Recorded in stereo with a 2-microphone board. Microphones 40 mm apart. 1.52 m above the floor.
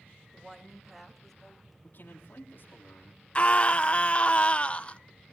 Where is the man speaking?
55° left (ahead or behind), 3 m.